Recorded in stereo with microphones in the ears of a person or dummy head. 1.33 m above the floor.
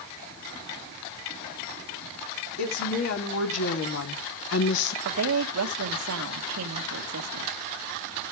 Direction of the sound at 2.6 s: 75° left (ahead or behind).